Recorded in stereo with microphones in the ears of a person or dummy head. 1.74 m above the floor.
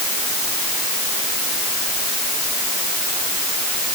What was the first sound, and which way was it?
Only background noise.